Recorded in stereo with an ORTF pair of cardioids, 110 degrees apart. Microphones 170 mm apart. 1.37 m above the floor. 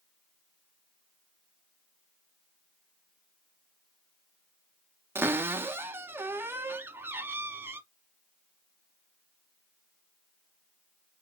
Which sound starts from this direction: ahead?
A cupboard door, at 5.2 s.